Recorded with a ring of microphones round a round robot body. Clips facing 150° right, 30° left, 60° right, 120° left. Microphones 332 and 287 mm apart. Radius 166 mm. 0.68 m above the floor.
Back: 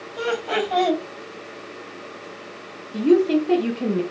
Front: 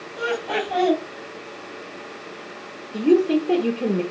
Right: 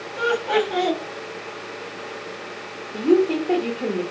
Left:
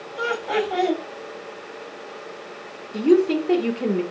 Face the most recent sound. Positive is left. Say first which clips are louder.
# back 1 dB, left 1 dB
turn(degrees=160)